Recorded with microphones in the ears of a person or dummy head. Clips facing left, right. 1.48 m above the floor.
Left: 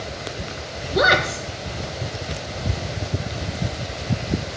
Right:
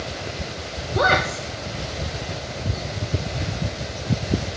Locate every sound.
0.9 s a woman speaking: 20° left (ahead or behind), 1.3 m